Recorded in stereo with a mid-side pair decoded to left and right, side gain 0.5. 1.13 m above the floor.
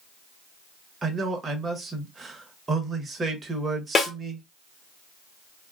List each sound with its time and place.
1.0 s a man speaking: 35° right, 1.2 m
4.0 s a snare drum: 40° left, 1.1 m